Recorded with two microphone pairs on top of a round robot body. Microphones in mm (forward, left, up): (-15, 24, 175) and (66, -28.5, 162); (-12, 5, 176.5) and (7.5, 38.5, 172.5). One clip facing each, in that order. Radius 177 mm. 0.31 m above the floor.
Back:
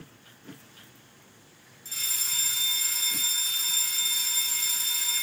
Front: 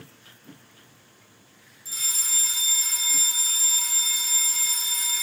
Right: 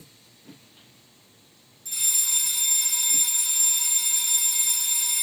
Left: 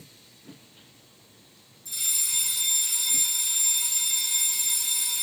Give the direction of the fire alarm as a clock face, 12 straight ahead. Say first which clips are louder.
Front 2 dB, right 2 dB; 3 o'clock.